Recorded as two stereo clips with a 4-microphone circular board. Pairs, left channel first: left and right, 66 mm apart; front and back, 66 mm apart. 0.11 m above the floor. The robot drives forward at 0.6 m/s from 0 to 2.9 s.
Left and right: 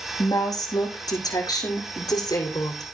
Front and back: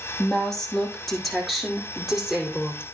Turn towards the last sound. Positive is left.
turn(degrees=105)